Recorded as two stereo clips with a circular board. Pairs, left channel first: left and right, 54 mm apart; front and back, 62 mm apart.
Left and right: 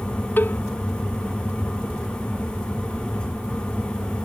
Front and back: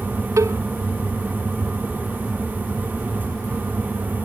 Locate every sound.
0.4 s a cowbell: 145° left